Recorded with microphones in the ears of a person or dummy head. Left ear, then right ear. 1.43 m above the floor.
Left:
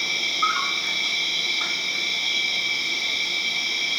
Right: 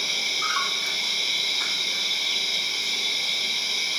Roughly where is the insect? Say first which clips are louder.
Left 2 dB; right.